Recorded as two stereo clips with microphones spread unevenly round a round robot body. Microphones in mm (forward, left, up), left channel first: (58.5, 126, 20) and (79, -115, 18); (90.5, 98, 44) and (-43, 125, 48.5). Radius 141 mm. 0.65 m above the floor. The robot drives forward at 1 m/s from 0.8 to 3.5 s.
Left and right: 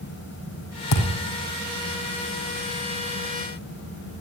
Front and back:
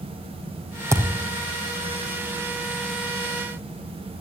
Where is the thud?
100° left, 5 m; by 1.2 s 105° left, 5 m.